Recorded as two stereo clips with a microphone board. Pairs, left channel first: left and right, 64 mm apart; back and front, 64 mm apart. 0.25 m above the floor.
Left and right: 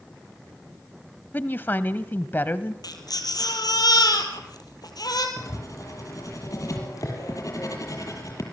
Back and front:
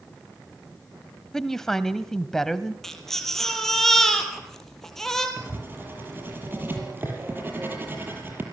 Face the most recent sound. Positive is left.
turn(degrees=60)